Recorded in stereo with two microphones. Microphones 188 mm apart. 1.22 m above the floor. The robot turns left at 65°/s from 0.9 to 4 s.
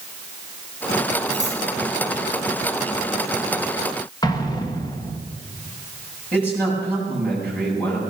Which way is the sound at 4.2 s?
20° left (ahead or behind).